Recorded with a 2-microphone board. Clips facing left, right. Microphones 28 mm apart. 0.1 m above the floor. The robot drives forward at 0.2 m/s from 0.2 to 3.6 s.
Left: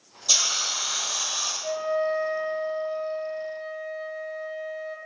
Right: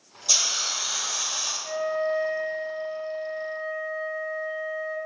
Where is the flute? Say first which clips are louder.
Left 1 dB; 45° left (ahead or behind), 1.3 m; by 5.0 s 35° left (ahead or behind), 1.6 m.